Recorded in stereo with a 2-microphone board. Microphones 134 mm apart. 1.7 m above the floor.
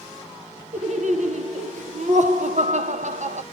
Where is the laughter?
65° right (ahead or behind), 1.1 m.